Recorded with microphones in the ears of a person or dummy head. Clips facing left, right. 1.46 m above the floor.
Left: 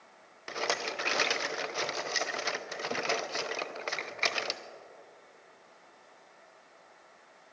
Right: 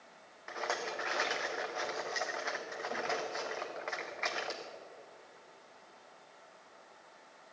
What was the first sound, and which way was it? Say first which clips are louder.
A rattle: left 3 dB; 45° left (ahead or behind).